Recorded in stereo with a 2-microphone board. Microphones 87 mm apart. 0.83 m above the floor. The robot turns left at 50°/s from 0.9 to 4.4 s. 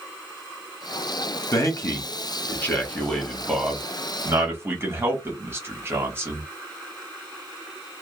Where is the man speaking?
35° left (ahead or behind), 1.1 m; by 6.4 s 25° right (ahead or behind), 1.1 m.